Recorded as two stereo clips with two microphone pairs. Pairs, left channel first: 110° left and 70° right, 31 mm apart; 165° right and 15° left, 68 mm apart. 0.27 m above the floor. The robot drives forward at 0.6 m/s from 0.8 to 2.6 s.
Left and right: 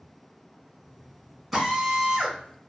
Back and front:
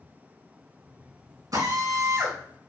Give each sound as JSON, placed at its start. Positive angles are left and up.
{"t": 1.5, "sound": "a drill", "azimuth_deg": 20, "distance_m": 2.0}